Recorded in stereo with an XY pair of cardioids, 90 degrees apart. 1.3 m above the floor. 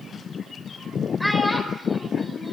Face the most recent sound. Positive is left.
turn(degrees=5)